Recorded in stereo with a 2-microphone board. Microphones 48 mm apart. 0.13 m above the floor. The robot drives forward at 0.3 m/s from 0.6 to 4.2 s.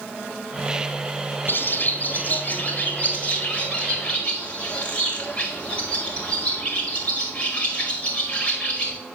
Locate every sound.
1.5 s a bird: 50° left (ahead or behind), 0.9 m; by 9.0 s 25° left (ahead or behind), 1.5 m